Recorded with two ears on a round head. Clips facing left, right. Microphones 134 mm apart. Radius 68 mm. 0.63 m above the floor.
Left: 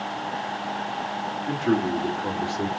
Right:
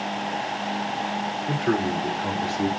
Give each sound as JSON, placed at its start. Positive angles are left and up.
{"t": 1.5, "sound": "a man speaking", "side_deg": 40, "distance_m": 1.7}